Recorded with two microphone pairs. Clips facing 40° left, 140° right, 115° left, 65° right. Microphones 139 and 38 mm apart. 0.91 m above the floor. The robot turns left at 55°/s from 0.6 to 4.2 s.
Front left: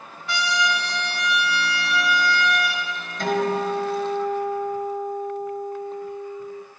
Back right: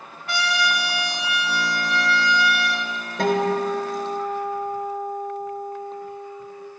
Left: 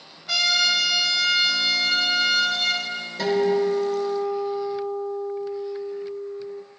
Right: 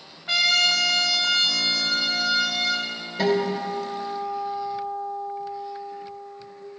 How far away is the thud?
I don't hear a thud.